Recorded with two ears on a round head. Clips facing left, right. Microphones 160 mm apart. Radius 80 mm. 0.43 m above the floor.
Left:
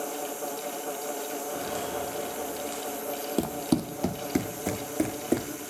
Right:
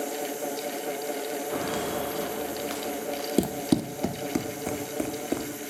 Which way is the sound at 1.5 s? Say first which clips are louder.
Right 4 dB; 85° right.